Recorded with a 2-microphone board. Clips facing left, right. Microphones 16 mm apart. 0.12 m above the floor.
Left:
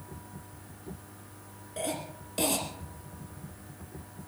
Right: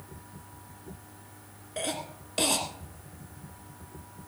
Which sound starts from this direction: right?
A cough, at 1.8 s.